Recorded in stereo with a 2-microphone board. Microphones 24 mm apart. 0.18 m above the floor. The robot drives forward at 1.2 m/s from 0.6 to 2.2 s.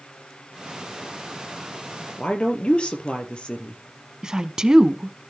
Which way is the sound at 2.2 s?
45° left (ahead or behind).